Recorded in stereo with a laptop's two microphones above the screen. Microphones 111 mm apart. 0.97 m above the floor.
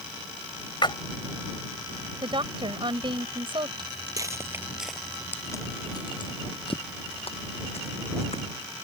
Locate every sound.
0.8 s a splash: 45° left (ahead or behind)
2.2 s a woman speaking: 55° right (ahead or behind)
3.8 s footsteps: 45° right (ahead or behind); by 8.4 s 75° left (ahead or behind)